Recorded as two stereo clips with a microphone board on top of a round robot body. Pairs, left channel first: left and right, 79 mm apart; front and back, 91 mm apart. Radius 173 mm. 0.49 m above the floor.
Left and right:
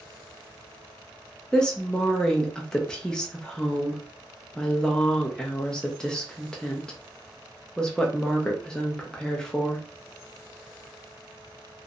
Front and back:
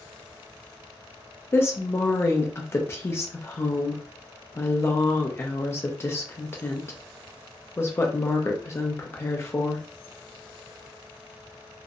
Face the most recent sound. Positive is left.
turn(degrees=20)